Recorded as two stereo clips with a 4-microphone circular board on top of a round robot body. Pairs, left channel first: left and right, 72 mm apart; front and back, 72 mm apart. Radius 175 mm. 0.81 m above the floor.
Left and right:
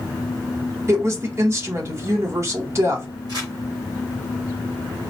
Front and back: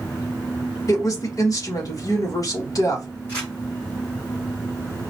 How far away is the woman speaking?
About 1.4 m.